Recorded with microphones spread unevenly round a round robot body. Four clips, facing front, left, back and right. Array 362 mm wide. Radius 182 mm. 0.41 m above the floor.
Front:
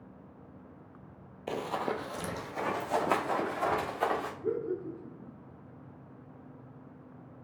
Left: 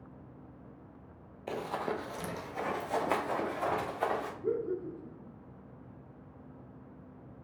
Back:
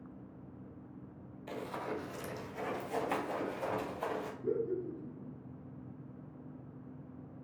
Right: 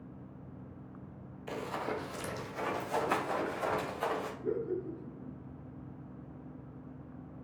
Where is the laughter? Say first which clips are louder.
Left 2 dB, front 2 dB; 50° left, 2 m.